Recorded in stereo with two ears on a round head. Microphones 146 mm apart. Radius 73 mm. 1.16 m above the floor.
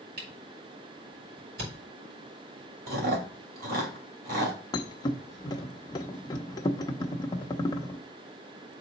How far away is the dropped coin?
No dropped coin in this recording.